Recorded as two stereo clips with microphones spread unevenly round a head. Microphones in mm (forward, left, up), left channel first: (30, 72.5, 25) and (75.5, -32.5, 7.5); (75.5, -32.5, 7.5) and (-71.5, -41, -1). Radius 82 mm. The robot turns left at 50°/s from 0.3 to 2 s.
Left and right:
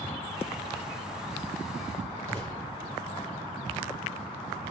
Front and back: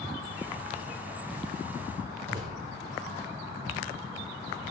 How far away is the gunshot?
About 7 m.